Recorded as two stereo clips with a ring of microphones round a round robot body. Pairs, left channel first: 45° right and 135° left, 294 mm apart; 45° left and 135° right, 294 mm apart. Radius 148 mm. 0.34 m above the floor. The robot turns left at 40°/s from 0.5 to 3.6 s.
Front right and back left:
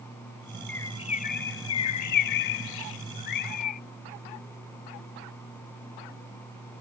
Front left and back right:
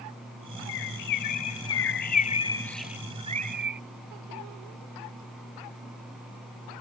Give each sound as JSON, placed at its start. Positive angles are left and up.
{"t": 0.7, "sound": "a bird", "azimuth_deg": 40}